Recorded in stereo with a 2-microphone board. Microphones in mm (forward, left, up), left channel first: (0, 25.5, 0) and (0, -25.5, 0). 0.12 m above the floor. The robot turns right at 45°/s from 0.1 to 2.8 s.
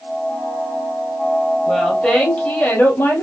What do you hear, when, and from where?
1.7 s a woman speaking: 5° left, 2.5 m; by 3.2 s 60° left, 2.5 m